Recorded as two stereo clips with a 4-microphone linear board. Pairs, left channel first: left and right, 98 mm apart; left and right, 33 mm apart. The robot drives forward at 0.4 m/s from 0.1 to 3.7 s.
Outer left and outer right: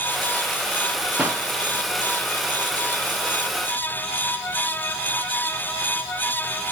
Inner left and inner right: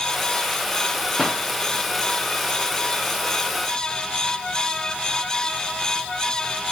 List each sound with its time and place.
1.2 s a pop: 10° right (ahead or behind), 3 m